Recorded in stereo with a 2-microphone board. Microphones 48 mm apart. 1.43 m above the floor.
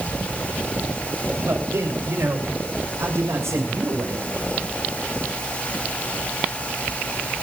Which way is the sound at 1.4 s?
65° right (ahead or behind).